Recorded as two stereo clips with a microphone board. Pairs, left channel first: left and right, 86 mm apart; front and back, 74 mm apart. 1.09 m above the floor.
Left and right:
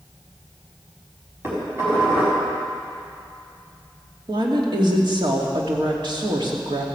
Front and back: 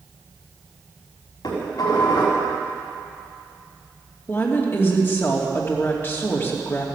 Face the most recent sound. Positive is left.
turn(degrees=-60)